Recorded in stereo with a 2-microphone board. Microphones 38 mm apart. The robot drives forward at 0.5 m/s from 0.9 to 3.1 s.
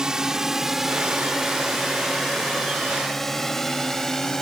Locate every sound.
0.0 s a drone: 15° right (ahead or behind); by 4.4 s 15° left (ahead or behind)